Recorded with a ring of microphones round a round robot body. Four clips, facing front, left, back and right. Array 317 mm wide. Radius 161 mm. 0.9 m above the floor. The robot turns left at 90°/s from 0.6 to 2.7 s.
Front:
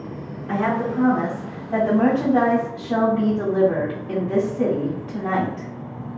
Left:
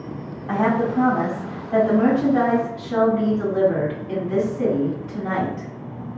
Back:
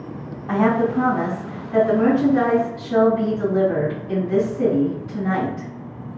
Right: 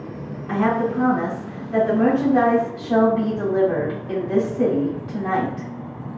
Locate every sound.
0.5 s a woman speaking: 140° left, 1.8 m; by 5.7 s 50° right, 1.8 m